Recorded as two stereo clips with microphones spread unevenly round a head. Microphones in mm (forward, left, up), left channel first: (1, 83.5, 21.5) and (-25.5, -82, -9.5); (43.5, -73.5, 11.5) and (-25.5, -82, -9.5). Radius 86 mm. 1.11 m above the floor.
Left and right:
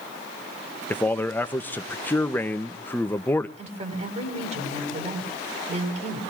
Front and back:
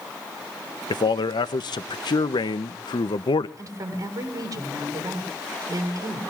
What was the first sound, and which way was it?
A man speaking, straight ahead.